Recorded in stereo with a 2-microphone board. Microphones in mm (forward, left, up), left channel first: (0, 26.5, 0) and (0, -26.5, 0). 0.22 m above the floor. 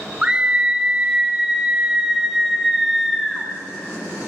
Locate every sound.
0.2 s a scream: 15° right (ahead or behind), 2 m; by 3.5 s centre (ahead or behind), 1.9 m